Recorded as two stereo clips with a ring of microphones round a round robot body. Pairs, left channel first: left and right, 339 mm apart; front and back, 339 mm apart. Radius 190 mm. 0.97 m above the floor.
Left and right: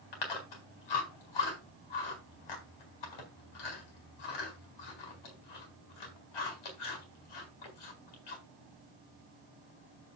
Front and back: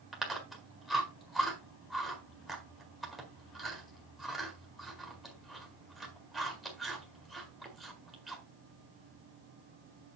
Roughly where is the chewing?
Left.